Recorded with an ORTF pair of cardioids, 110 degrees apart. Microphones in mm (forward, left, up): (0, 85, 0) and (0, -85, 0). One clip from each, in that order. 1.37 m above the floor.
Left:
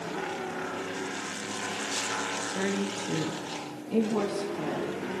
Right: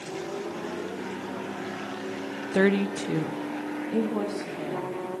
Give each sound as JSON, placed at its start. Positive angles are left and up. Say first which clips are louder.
{"t": 2.5, "sound": "a woman speaking", "louder": "right 7 dB", "azimuth_deg": -60, "distance_m": 0.7}